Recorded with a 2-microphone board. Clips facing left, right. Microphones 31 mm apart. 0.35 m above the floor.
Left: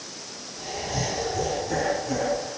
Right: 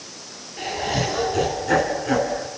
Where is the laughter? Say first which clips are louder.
Right 6 dB; 75° right (ahead or behind), 3 m; by 2.5 s 60° right (ahead or behind), 3.5 m.